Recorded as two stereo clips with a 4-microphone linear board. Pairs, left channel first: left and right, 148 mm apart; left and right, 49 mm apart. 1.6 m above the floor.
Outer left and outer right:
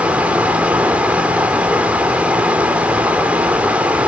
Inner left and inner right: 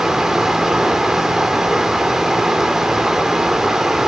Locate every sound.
0.0 s running water: 10° right (ahead or behind), 2.5 m